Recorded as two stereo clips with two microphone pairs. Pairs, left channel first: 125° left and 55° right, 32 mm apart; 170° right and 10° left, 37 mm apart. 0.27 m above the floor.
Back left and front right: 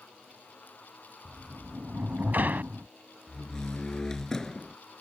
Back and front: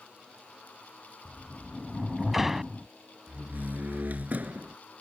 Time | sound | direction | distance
1.2 | a sliding door | 70° right | ?
3.3 | a door slam | 50° left | ?